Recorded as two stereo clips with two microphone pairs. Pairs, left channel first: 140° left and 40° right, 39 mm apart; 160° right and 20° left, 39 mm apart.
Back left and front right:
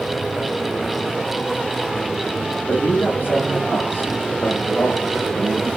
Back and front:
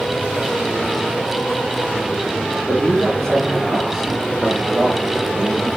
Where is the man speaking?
120° left, 5 m; by 5.7 s 80° left, 4.5 m.